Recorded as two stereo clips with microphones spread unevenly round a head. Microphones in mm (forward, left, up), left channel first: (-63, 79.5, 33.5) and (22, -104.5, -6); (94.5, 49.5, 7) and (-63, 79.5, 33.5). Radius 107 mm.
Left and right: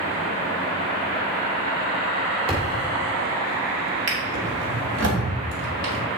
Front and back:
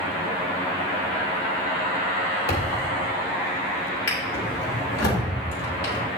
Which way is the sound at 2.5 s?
Straight ahead.